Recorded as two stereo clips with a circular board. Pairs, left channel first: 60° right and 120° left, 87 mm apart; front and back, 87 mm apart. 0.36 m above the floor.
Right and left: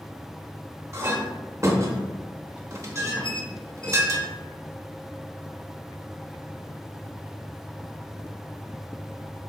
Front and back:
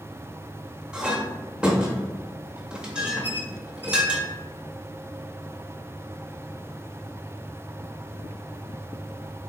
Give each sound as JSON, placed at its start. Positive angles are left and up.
{"t": 0.9, "sound": "a clink", "azimuth_deg": 105, "distance_m": 0.7}
{"t": 3.2, "sound": "a squeak", "azimuth_deg": -65, "distance_m": 0.7}